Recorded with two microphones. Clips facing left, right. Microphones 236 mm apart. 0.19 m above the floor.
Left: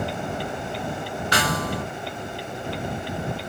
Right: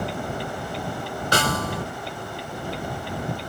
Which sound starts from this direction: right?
A snare drum, at 1.3 s.